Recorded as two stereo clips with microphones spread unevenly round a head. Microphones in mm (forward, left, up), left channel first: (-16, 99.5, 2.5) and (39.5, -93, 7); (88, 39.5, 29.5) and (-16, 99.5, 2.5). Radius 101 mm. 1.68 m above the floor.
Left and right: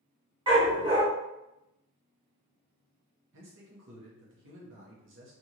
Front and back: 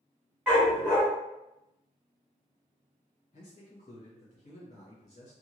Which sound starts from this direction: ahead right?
A man speaking, at 3.3 s.